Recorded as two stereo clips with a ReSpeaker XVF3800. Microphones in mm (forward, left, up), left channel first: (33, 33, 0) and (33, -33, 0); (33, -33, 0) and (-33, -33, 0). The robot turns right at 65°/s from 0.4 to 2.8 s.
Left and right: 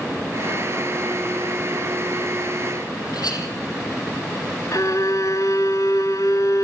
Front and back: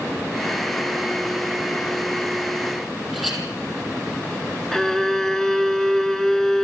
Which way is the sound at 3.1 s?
90° left.